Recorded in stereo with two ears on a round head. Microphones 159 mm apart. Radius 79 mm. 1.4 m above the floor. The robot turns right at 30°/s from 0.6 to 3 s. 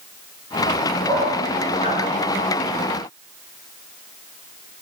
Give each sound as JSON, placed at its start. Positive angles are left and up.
{"t": 1.1, "sound": "a dog barking", "side_deg": 15, "distance_m": 5.0}